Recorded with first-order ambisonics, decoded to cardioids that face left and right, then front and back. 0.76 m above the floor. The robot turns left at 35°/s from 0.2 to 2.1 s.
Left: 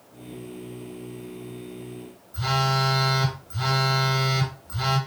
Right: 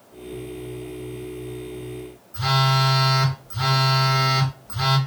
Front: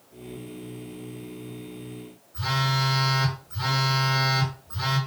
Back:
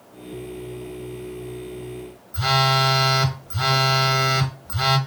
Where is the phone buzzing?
170° right, 0.8 m.